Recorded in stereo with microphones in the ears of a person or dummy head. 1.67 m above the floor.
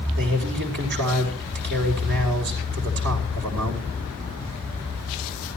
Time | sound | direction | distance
0.2 | a man speaking | 55° right (ahead or behind) | 4.5 m